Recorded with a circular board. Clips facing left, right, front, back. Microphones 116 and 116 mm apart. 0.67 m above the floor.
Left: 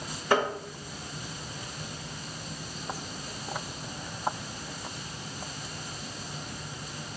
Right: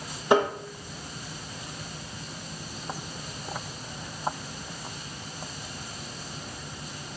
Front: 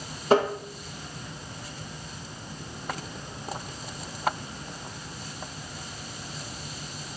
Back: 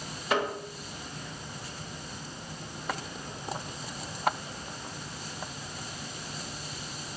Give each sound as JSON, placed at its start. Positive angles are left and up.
{"t": 0.3, "sound": "tapping", "azimuth_deg": -30, "distance_m": 1.1}